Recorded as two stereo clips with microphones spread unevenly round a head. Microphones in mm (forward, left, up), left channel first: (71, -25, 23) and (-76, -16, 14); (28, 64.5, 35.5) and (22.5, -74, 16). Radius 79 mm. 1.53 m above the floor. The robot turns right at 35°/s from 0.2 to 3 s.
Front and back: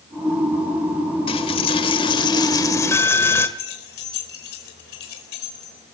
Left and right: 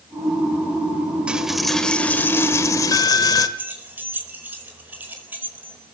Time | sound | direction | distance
1.3 | a dropped coin | 5° right | 1.5 m
3.6 | keys jangling | 15° right | 4.5 m